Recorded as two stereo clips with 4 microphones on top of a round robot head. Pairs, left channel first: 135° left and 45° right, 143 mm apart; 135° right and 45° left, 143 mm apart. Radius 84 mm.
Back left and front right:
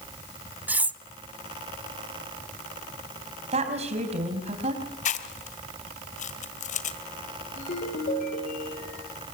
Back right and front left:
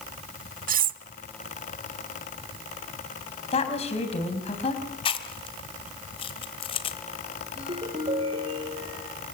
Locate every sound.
0.7 s cutlery clinking: 35° left, 0.9 m
3.5 s a woman speaking: 90° right, 4.5 m
5.0 s chewing: 170° left, 1.7 m
7.6 s a ringtone: 100° left, 9 m